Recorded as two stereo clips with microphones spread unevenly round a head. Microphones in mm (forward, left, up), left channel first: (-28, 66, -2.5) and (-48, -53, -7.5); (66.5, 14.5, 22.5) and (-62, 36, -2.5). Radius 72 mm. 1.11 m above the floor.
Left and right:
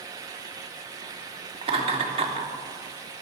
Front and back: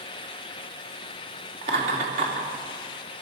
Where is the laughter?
140° right, 3 m.